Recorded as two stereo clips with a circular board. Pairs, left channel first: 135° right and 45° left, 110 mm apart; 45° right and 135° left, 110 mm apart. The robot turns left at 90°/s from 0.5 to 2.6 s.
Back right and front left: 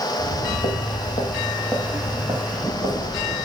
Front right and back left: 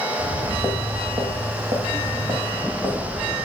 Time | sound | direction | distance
0.2 | footsteps | 120° right | 1.5 m